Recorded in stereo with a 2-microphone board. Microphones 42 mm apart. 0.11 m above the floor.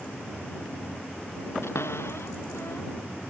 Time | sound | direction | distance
1.6 | a cupboard door | 70° left (ahead or behind) | ?